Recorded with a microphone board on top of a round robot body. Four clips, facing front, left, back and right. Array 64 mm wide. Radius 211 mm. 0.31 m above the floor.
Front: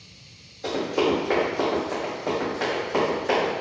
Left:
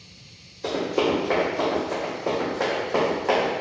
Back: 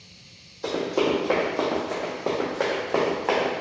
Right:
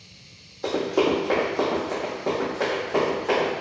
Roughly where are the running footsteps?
Behind right.